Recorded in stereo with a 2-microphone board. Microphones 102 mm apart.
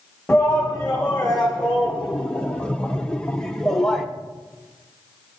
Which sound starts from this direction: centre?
A shout, at 0.3 s.